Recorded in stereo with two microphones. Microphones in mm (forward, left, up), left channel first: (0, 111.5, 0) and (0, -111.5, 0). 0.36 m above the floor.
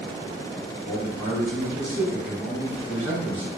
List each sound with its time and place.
0.8 s a man speaking: 10° left (ahead or behind), 1.5 m